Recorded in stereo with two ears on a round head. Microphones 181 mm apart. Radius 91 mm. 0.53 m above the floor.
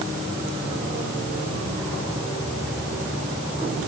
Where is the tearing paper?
No tearing paper in this recording.